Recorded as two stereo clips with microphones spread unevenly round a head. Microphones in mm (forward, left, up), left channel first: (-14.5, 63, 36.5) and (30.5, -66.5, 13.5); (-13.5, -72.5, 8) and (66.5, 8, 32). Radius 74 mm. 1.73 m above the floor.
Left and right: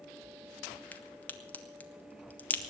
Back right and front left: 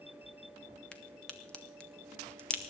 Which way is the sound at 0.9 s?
120° left.